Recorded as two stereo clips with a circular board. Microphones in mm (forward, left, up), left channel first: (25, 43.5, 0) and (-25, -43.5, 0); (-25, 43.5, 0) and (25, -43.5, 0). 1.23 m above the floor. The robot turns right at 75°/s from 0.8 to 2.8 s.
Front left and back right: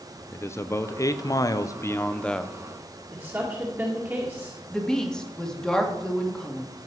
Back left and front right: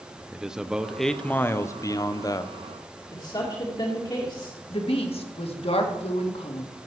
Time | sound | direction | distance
0.3 | a man speaking | 20° left | 0.7 m
3.1 | a woman speaking | 165° left | 2 m
4.7 | a woman speaking | 145° left | 1.9 m